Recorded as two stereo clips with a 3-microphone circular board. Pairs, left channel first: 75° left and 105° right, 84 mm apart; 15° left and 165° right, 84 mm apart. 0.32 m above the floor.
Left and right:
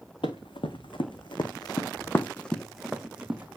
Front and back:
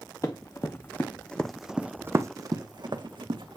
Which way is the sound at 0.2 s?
65° left.